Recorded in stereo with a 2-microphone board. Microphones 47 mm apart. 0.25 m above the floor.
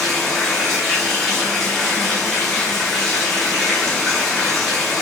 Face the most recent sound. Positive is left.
turn(degrees=5)  # may be behind; listen again after turning